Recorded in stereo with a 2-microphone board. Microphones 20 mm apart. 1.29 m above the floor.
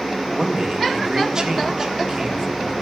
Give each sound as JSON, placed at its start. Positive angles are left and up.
{"t": 0.3, "sound": "a man speaking", "side_deg": -30, "distance_m": 1.8}